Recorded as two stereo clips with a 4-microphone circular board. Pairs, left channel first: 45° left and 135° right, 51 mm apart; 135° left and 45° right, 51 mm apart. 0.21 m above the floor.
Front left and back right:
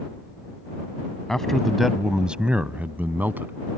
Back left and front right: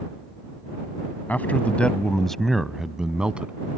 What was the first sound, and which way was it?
A man speaking, 115° left.